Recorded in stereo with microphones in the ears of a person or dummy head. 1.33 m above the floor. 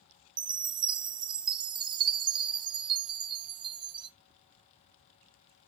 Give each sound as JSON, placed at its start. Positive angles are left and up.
{"t": 0.4, "sound": "a chime", "side_deg": -25, "distance_m": 0.9}